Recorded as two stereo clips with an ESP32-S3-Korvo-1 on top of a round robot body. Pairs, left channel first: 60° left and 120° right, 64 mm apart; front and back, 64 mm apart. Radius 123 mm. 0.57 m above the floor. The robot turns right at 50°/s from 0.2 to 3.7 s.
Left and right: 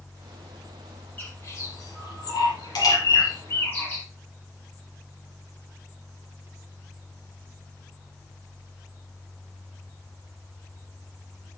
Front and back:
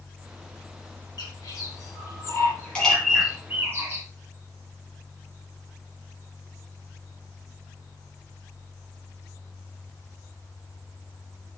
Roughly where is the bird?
Ahead.